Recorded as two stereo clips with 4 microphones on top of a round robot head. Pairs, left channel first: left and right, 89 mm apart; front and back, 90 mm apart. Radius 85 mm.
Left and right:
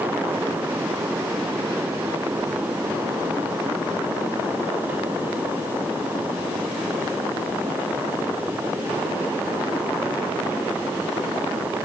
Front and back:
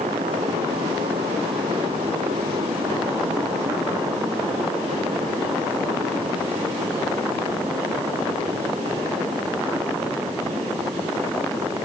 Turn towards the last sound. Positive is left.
No sound to turn to.